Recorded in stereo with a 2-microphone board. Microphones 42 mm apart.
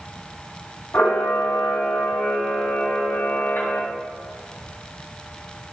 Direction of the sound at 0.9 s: 70° left (ahead or behind).